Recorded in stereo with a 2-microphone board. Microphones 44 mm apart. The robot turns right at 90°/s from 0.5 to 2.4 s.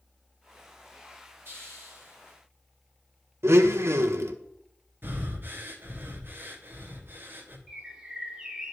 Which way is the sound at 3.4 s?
70° right (ahead or behind).